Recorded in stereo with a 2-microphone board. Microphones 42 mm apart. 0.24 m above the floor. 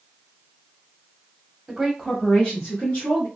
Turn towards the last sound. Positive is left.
turn(degrees=40)  # may be behind; listen again after turning